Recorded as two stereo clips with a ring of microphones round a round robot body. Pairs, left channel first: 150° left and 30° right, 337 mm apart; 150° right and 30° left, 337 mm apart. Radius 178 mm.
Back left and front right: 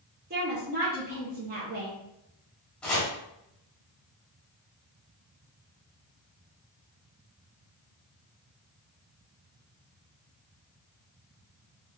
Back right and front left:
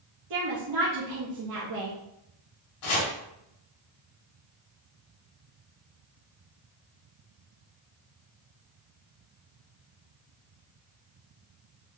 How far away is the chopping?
About 1.4 m.